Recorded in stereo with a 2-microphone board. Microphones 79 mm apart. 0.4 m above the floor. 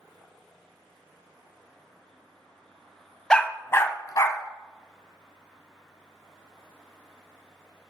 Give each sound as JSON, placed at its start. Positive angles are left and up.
{"t": 3.3, "sound": "a dog barking", "side_deg": 10, "distance_m": 0.6}